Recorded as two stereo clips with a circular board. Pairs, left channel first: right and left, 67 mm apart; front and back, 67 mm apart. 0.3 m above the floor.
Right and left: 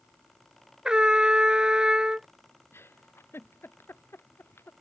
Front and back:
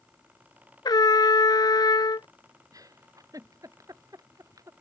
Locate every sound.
0.8 s a trumpet: 10° left
2.7 s a giggle: 145° right